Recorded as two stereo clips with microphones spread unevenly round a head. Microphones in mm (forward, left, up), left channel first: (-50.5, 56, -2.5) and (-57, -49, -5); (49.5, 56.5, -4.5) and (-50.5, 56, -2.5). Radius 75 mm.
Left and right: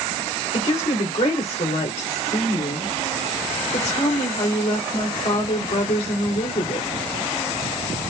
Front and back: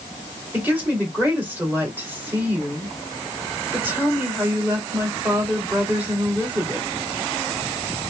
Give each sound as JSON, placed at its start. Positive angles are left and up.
{"t": 0.5, "sound": "a woman speaking", "azimuth_deg": 110, "distance_m": 2.5}